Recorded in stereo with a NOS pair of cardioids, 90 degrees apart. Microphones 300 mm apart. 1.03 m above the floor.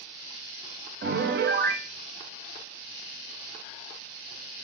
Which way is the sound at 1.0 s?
35° right.